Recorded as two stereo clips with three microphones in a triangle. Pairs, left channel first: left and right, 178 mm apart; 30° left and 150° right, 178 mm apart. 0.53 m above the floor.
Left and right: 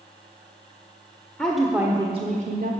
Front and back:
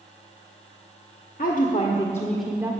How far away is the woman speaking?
About 1.2 m.